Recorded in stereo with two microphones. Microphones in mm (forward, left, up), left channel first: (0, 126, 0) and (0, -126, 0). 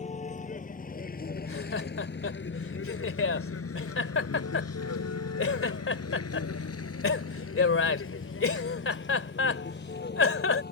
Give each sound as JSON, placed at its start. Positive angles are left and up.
{"t": 0.0, "sound": "a vehicle", "side_deg": 30}
{"t": 1.4, "sound": "laughter", "side_deg": 55}